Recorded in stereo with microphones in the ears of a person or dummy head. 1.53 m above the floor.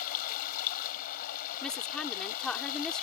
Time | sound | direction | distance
0.0 | running water | 50° left (ahead or behind) | ?
1.6 | a woman speaking | 5° left (ahead or behind) | ?